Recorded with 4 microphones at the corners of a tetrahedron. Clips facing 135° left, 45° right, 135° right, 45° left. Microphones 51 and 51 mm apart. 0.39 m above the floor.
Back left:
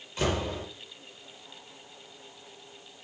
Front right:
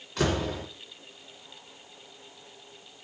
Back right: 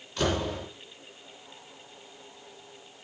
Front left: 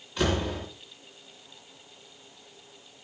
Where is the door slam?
35° right, 3 m.